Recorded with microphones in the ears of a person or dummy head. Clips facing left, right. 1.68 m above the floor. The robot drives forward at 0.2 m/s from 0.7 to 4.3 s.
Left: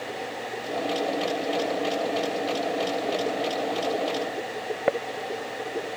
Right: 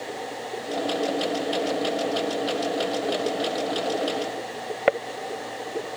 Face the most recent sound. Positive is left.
No sound to turn to.